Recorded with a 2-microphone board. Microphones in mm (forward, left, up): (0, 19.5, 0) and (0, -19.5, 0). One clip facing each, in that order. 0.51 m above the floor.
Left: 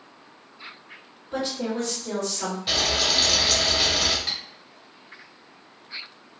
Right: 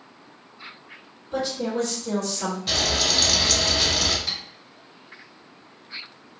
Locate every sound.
1.3 s a woman speaking: 30° left (ahead or behind), 1.6 m
2.7 s frying: 15° left (ahead or behind), 0.5 m
4.3 s tapping: 35° left (ahead or behind), 1.5 m